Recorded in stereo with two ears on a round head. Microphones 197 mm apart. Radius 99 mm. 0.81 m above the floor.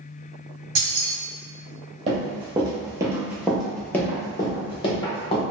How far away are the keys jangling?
About 1.3 m.